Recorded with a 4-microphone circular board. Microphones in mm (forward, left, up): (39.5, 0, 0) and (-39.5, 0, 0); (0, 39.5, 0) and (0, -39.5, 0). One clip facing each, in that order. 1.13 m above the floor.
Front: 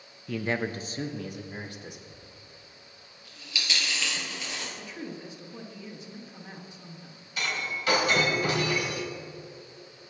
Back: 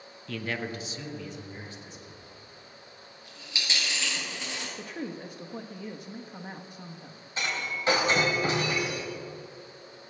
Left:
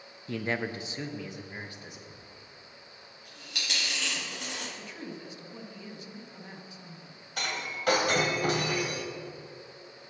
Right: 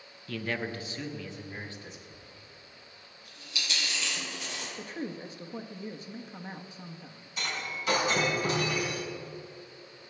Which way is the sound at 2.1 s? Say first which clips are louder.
Back 2 dB, left 1 dB; 120° left.